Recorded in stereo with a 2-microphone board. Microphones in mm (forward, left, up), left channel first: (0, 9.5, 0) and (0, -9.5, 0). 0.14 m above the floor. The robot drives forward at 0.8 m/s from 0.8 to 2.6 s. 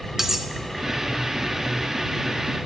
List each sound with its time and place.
0.2 s cutlery clinking: 20° right (ahead or behind), 0.7 m